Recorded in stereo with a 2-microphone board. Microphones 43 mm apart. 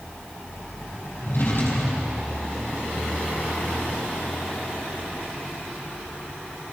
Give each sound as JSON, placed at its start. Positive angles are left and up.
{"t": 1.2, "sound": "a drawer", "side_deg": 60, "distance_m": 5.0}